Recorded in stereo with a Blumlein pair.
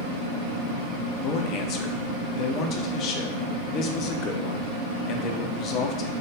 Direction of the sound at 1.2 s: 35° left.